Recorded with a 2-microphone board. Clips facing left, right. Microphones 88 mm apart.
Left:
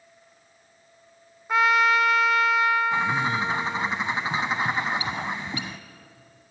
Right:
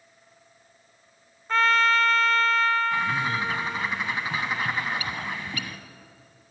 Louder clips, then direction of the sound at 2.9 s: Left 2 dB; 25° left (ahead or behind).